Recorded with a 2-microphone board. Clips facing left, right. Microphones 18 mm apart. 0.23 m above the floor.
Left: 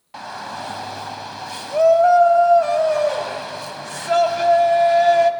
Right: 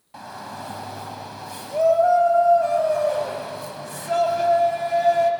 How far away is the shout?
About 1.3 m.